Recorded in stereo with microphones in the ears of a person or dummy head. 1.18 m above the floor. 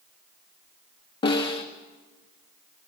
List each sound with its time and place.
1.2 s a snare drum: 25° left (ahead or behind), 1.3 m